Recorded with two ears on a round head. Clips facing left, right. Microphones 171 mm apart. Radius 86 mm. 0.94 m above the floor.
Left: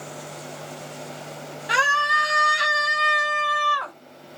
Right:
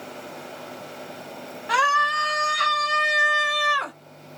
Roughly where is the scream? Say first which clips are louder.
Right 1 dB; left.